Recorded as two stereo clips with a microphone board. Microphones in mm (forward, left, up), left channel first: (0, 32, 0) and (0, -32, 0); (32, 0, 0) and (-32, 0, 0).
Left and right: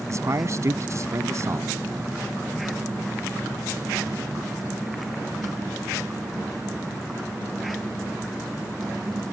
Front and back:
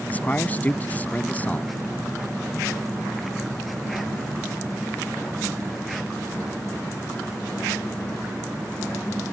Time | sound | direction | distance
0.1 | a man speaking | 60° right | ?